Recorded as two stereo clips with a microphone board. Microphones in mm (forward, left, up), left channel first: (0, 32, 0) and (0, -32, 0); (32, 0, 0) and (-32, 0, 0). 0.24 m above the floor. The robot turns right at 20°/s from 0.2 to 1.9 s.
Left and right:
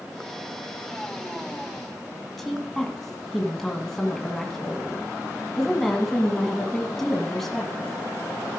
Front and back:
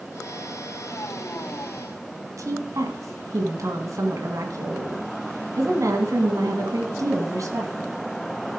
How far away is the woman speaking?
About 2.0 m.